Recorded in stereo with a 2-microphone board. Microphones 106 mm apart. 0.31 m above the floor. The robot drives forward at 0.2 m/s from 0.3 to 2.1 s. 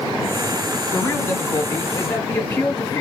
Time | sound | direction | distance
0.9 | a man speaking | 20° left (ahead or behind) | 2.5 m